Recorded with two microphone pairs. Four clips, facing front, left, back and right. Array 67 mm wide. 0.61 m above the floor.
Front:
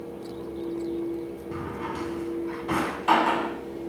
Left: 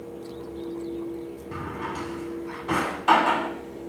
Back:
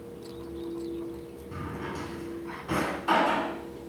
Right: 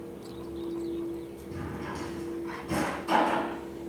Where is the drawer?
65° left, 1.9 m.